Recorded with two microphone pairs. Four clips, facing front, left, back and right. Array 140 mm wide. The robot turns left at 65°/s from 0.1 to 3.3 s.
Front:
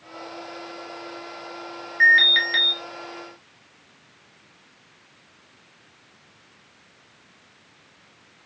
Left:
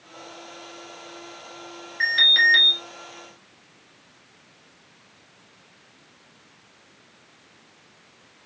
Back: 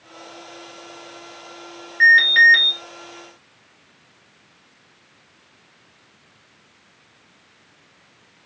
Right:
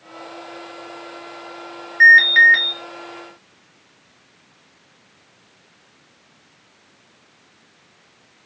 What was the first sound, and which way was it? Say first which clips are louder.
An alarm: right 11 dB, back 5 dB; 80° right.